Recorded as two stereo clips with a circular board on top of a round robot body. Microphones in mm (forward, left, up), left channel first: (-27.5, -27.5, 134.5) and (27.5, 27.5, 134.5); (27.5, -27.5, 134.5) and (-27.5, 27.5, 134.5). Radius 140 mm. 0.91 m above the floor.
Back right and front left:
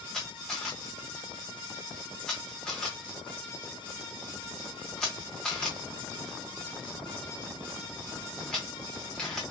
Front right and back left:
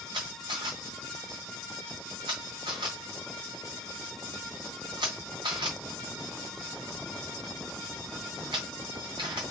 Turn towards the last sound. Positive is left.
turn(degrees=145)